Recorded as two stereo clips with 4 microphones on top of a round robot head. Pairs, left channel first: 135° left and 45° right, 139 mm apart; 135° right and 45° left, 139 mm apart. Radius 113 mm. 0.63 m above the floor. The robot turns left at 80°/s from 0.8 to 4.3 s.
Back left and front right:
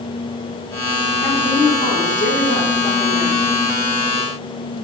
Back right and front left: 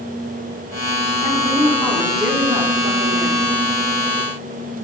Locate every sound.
1.2 s a woman speaking: 155° right, 1.9 m; by 3.4 s 25° left, 1.9 m